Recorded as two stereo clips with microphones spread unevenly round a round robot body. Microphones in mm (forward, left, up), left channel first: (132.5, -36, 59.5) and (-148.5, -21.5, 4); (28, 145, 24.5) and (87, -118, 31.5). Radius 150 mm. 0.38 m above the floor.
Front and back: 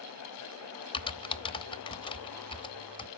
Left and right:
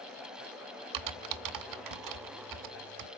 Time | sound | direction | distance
0.9 | typing on a keyboard | 80° right | 1.0 m